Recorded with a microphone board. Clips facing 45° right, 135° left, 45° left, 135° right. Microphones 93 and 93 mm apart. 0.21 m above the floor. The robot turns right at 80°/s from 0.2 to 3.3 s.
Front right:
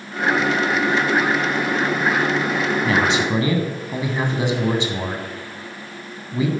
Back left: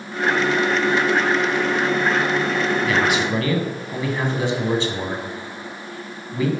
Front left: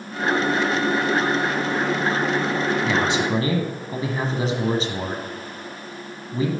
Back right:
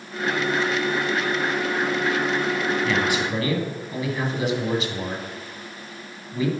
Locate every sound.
2.8 s a man speaking: 20° right, 1.5 m; by 6.5 s 15° left, 1.5 m